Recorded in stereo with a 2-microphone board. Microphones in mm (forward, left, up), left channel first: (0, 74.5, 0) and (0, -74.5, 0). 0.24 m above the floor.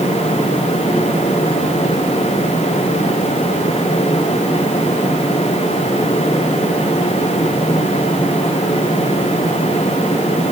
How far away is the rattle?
No rattle in this recording.